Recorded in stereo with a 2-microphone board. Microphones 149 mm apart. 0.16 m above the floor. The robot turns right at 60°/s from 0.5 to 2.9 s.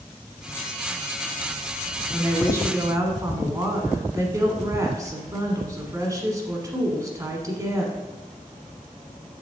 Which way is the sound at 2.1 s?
5° right (ahead or behind).